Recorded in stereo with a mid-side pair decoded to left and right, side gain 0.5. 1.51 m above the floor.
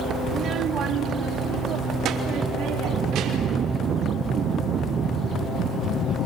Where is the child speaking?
55° right, 1.2 m; by 3.6 s 75° right, 4 m.